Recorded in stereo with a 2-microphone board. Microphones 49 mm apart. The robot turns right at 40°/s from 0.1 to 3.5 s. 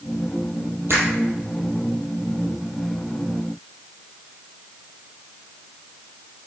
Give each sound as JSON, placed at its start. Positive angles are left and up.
{"t": 0.9, "sound": "a finger snap", "side_deg": -55, "distance_m": 4.5}